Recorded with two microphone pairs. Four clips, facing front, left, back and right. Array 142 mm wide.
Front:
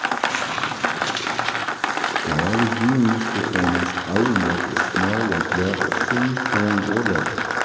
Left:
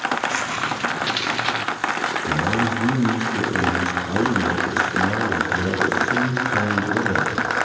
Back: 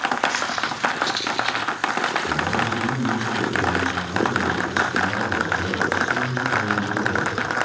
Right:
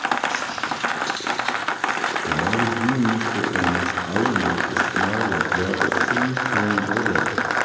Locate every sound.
0.3 s footsteps: 20° left, 1.8 m; by 1.7 s 65° left, 1.4 m
2.3 s a man speaking: 15° right, 3 m